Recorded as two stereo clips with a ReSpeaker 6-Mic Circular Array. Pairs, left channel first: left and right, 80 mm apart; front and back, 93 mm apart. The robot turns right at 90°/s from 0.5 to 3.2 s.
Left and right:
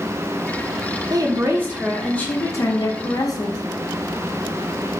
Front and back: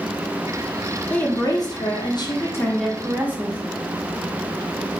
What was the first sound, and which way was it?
A woman speaking, 75° right.